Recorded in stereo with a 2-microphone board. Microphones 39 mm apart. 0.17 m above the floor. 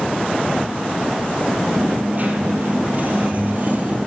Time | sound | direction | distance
1.8 | a dropped coin | 45° right (ahead or behind) | 1.6 m